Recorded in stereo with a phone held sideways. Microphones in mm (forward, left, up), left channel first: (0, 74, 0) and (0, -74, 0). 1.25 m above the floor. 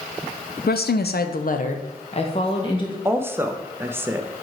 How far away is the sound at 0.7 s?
About 0.5 m.